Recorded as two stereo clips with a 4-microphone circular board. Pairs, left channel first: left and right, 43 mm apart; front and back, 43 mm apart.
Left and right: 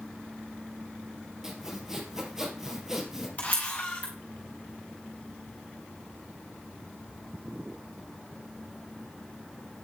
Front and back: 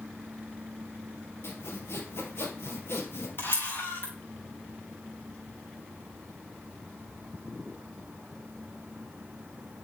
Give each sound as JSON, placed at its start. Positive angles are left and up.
{"t": 1.4, "sound": "sawing", "azimuth_deg": -10, "distance_m": 2.5}
{"t": 3.4, "sound": "a camera shutter", "azimuth_deg": 35, "distance_m": 4.0}